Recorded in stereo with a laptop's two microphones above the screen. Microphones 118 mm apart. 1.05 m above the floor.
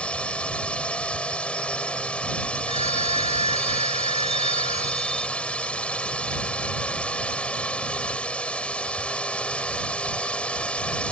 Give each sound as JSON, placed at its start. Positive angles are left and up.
{"t": 0.0, "sound": "a drone", "side_deg": 10}
{"t": 2.7, "sound": "a phone ringing", "side_deg": 60}